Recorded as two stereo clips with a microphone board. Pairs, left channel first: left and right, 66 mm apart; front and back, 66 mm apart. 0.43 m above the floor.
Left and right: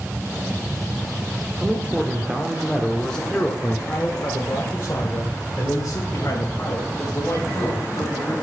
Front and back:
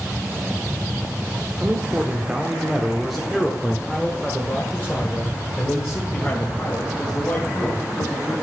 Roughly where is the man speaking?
Behind right.